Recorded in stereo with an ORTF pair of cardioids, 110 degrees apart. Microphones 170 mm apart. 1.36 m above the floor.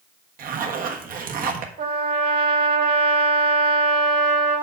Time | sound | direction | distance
0.4 | a zipper | 55° right | 1.4 m
1.8 | a trumpet | 65° right | 3 m